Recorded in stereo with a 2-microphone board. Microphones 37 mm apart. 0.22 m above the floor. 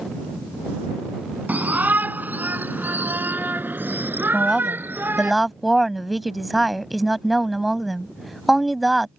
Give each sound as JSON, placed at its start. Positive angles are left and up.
{"t": 1.5, "sound": "a shout", "side_deg": -55}
{"t": 4.3, "sound": "a woman speaking", "side_deg": 0}